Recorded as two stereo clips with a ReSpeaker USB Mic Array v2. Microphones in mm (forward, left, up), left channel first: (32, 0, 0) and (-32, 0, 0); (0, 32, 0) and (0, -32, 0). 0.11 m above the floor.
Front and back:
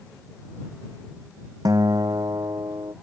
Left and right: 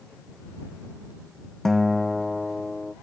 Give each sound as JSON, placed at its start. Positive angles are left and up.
{"t": 1.6, "sound": "a guitar", "azimuth_deg": 175}